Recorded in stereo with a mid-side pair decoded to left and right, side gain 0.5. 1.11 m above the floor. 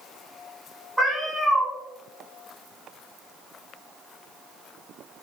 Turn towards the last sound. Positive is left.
turn(degrees=0)